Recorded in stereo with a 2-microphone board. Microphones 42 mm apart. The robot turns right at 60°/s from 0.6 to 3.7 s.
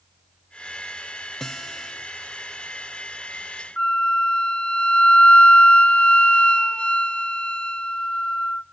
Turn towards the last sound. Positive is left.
turn(degrees=35)  # may be behind; listen again after turning